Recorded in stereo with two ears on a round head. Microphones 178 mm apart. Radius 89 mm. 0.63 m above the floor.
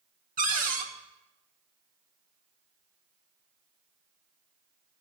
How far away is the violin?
I don't hear a violin.